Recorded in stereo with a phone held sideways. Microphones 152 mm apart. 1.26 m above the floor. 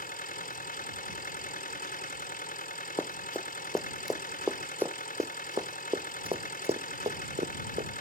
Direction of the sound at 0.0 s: 70° left (ahead or behind).